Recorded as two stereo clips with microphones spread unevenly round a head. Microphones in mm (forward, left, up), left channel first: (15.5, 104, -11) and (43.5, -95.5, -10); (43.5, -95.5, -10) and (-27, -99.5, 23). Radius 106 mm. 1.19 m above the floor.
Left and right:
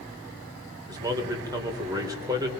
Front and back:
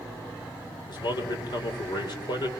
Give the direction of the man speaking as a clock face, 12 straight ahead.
12 o'clock.